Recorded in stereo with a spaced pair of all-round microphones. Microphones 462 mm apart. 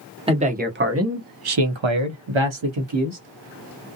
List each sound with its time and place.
0.3 s a man speaking: 10° right (ahead or behind), 0.9 m; by 3.2 s 60° right (ahead or behind), 1.0 m